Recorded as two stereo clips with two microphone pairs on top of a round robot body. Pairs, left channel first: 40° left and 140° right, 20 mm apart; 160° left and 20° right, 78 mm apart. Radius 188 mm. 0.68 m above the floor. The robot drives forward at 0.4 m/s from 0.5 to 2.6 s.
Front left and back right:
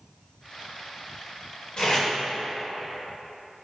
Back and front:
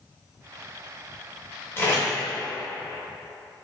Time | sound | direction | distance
1.8 | tape being pulled | 100° left | 0.7 m